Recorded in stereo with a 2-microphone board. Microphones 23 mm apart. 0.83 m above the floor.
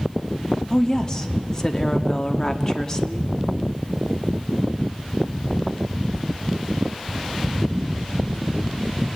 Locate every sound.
0.7 s a woman speaking: 30° left (ahead or behind), 1.3 m